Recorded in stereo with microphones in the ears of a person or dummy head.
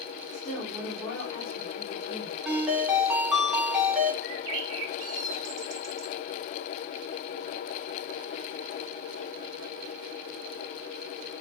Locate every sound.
0.3 s a woman speaking: 25° left (ahead or behind), 3.5 m
2.5 s a ringtone: 5° right (ahead or behind), 2.5 m
4.2 s a bird: 70° right (ahead or behind), 2 m